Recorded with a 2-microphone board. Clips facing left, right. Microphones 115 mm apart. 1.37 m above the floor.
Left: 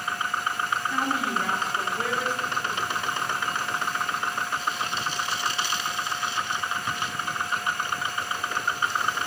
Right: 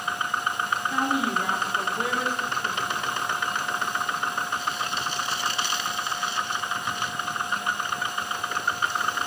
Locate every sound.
0.9 s a woman speaking: 15° right (ahead or behind), 1.9 m